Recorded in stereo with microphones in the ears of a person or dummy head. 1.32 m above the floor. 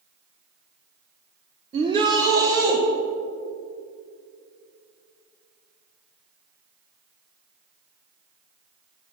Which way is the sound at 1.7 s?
30° right (ahead or behind).